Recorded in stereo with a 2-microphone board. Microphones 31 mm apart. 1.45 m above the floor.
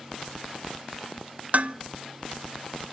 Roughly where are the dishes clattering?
Right.